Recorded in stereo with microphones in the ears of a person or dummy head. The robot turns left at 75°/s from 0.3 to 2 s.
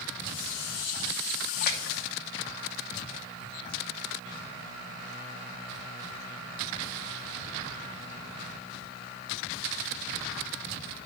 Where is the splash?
40° left (ahead or behind), 0.9 m; by 2.0 s 75° left (ahead or behind), 0.9 m.